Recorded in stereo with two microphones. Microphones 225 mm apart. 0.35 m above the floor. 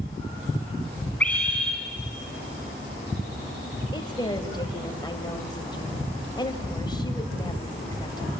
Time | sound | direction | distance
1.2 | a scream | 5° left (ahead or behind) | 3 m
3.9 | a woman speaking | 20° left (ahead or behind) | 1.7 m